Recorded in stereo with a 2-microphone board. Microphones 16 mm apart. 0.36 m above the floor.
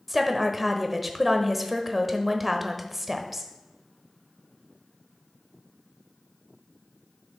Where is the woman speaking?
5° right (ahead or behind), 1.1 m.